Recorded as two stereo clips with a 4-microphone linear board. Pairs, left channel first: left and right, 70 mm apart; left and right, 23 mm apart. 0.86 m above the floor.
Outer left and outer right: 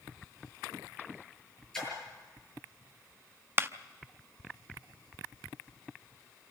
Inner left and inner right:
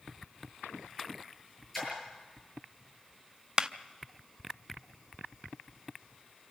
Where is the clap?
30° right (ahead or behind), 0.7 m.